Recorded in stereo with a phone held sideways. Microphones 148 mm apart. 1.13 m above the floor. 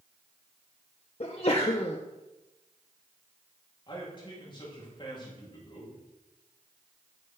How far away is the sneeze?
About 0.5 m.